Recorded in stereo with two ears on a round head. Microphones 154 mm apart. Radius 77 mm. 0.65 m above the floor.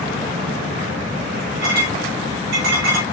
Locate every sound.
1.6 s a clink: 65° right (ahead or behind), 5 m